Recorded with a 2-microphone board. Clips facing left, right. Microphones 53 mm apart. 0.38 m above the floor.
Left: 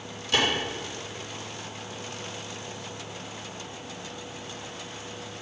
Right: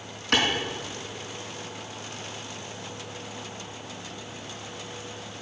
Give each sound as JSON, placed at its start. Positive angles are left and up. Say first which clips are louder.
{"t": 0.3, "sound": "a clap", "louder": "right 1 dB", "side_deg": -60, "distance_m": 4.0}